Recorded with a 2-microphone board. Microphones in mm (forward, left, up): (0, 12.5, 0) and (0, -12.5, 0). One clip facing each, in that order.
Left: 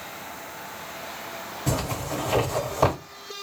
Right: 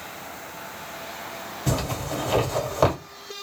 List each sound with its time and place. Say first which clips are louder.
1.7 s a zipper: right 1 dB; 25° right (ahead or behind), 1.9 m